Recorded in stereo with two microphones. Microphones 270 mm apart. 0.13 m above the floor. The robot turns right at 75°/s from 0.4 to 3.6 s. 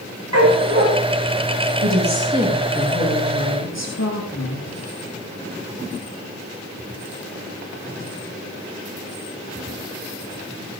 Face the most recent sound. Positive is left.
turn(degrees=75)